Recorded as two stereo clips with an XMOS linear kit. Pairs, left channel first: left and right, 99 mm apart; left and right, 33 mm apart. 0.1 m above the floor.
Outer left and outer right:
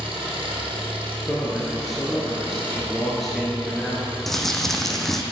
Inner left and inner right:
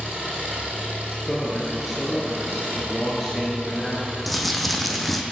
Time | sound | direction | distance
0.0 | an engine running | 65° right (ahead or behind) | 2.5 m
1.3 | a man speaking | centre (ahead or behind) | 1.6 m
4.3 | crumpling | 5° left (ahead or behind) | 0.8 m